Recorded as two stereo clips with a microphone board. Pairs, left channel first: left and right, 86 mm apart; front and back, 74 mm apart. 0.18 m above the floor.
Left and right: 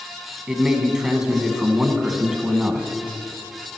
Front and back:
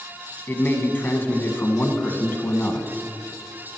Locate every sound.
0.5 s a man speaking: 15° right, 1.1 m